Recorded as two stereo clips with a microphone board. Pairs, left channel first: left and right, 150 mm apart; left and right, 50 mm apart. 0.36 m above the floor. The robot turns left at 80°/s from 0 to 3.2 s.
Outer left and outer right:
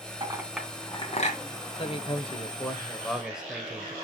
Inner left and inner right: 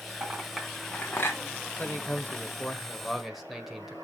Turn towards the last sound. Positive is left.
turn(degrees=-5)